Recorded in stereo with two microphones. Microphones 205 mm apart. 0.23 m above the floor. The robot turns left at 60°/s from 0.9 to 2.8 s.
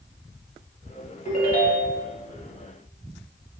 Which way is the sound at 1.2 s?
115° left.